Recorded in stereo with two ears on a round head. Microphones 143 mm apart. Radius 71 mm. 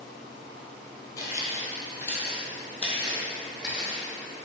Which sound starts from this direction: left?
Footsteps, at 1.2 s.